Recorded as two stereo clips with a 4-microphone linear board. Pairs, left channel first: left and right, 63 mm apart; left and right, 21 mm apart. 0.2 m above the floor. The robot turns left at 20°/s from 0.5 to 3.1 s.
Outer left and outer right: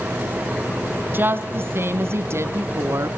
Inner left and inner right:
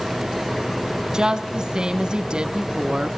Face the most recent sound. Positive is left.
turn(degrees=-90)